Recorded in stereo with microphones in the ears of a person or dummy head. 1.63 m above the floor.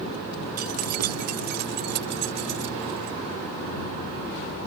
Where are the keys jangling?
45° right (ahead or behind); by 3.2 s 55° right (ahead or behind).